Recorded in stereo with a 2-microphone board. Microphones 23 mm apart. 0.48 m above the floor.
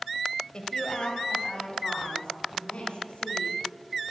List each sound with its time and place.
0.5 s a woman speaking: 40° left (ahead or behind), 2.0 m; by 3.6 s 50° left (ahead or behind), 5.5 m